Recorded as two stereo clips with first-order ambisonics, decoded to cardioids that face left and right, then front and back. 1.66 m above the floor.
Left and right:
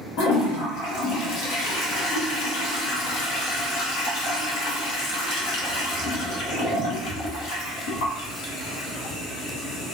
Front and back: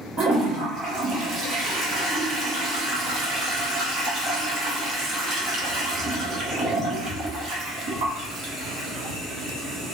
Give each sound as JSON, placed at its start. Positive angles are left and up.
{"t": 0.2, "sound": "a toilet flushing", "azimuth_deg": 125, "distance_m": 0.9}